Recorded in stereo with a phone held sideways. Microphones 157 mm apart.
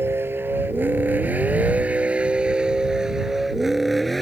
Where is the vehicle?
15° right (ahead or behind); by 4.2 s centre (ahead or behind).